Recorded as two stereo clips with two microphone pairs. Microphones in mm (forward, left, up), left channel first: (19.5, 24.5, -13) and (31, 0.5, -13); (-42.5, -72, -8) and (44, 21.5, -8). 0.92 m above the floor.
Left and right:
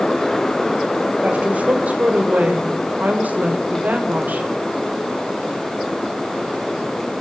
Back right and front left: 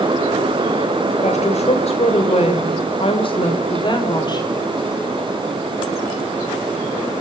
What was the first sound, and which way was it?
A woman speaking, 100° right.